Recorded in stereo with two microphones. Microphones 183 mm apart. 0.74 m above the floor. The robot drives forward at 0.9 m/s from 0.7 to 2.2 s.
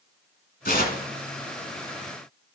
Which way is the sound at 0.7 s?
65° left (ahead or behind).